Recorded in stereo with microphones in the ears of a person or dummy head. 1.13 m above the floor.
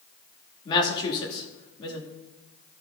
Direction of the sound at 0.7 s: 25° left (ahead or behind).